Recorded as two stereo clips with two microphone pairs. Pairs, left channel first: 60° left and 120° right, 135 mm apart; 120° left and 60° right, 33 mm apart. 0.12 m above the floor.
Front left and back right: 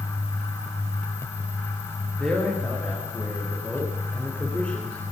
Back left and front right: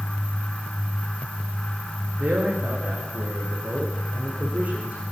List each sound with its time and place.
2.2 s a man speaking: 25° right, 9.5 m; by 5.0 s 20° right, 10.5 m